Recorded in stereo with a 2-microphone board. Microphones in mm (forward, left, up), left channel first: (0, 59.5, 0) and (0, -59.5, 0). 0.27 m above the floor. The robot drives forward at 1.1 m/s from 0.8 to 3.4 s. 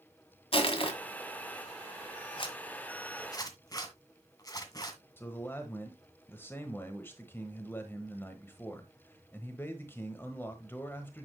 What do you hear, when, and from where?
0.5 s crushing: 50° left (ahead or behind), 1.7 m
2.4 s a zipper: 45° left (ahead or behind), 1.3 m; by 5.0 s 30° left (ahead or behind), 1.8 m
5.2 s a man speaking: 20° left (ahead or behind), 1.2 m